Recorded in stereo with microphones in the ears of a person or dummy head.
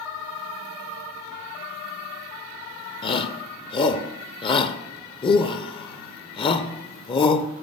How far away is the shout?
About 0.5 m.